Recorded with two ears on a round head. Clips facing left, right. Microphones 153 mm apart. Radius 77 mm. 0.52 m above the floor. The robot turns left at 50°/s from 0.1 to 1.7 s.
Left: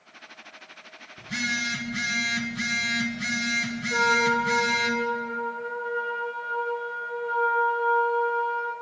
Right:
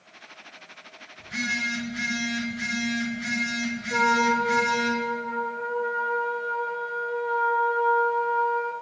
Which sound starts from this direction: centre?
A trumpet, at 3.9 s.